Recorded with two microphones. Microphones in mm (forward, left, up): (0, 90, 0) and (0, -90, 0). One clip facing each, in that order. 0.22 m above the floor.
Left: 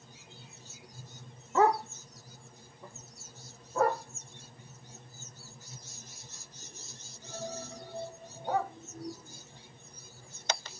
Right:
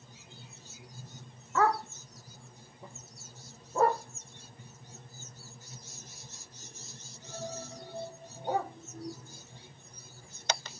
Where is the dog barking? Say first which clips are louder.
Left 3 dB; 25° left (ahead or behind), 0.5 m; by 8.7 s 40° right (ahead or behind), 5.5 m.